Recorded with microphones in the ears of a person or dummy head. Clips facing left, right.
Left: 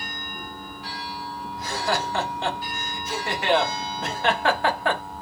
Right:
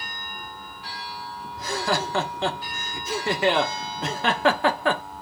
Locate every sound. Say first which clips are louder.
1.6 s laughter: right 1 dB; 70° right (ahead or behind), 0.8 m